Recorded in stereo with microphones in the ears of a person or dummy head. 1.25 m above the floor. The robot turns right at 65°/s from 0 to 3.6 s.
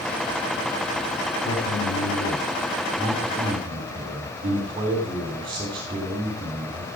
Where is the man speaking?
75° left, 3 m; by 6.8 s 145° right, 3 m.